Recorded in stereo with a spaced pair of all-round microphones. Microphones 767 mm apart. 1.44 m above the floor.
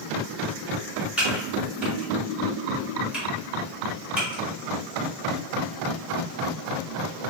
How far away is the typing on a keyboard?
About 1.1 m.